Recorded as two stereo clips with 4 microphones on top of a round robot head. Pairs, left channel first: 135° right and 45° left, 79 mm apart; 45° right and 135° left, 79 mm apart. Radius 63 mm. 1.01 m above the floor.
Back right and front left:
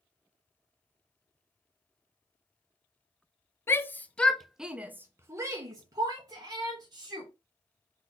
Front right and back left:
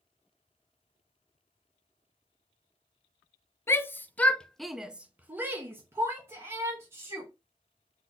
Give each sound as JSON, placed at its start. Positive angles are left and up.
{"t": 3.7, "sound": "a shout", "azimuth_deg": -90, "distance_m": 0.9}